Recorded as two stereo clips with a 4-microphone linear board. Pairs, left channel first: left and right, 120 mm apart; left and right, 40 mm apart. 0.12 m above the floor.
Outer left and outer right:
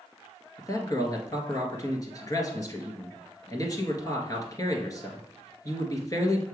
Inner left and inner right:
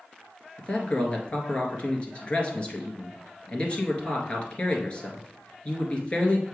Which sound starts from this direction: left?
A man speaking, at 0.6 s.